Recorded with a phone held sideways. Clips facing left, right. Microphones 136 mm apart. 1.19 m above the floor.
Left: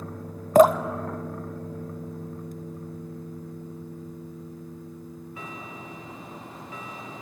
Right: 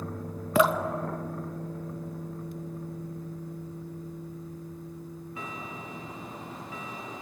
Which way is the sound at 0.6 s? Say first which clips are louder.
Left 8 dB; 45° left (ahead or behind).